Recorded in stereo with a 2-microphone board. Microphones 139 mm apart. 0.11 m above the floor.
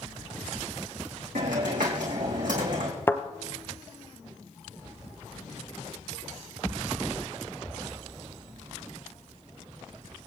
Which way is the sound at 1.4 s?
75° right (ahead or behind).